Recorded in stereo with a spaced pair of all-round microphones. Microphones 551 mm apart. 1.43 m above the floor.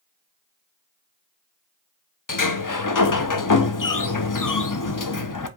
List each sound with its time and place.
2.3 s a sliding door: 35° left (ahead or behind), 0.6 m